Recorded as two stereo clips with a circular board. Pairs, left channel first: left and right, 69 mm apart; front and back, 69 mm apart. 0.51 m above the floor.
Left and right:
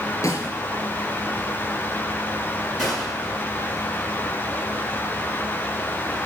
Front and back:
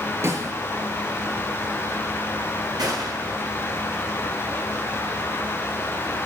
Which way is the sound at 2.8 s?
175° left.